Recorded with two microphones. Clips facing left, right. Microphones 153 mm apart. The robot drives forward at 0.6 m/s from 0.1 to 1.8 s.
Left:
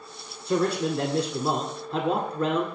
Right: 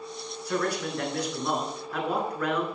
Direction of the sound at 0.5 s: 25° left (ahead or behind).